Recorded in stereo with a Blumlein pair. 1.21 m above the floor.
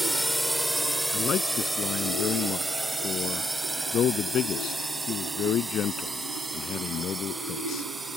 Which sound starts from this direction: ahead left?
A man speaking, at 1.1 s.